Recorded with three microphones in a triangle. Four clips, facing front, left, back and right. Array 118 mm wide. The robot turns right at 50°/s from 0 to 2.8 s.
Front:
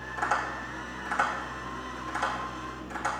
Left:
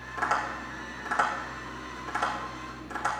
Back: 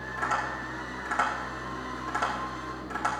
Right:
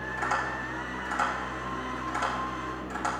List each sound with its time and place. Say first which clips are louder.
0.2 s tapping: left 2 dB, front 1 dB; 85° left, 8 m; by 3.1 s 145° right, 8 m